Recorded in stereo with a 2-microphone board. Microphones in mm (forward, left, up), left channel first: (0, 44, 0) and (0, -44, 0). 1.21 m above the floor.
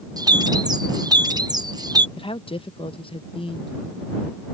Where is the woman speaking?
85° left.